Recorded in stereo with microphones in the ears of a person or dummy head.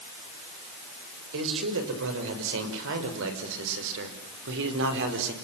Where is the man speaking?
70° right (ahead or behind), 6.5 m; by 5.3 s 65° right (ahead or behind), 4.5 m.